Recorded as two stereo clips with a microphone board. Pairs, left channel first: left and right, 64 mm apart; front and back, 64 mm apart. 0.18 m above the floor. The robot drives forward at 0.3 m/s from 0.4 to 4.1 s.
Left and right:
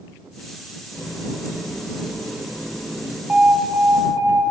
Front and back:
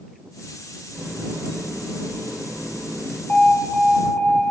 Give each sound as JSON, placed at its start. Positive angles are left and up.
{"t": 0.9, "sound": "a running tap", "azimuth_deg": -130, "distance_m": 3.0}
{"t": 3.3, "sound": "an alarm", "azimuth_deg": -50, "distance_m": 1.4}